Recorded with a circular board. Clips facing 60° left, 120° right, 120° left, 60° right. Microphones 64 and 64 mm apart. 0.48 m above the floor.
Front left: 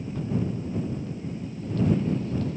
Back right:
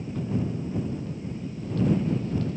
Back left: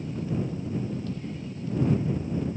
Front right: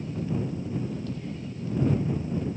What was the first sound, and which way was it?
Only background noise.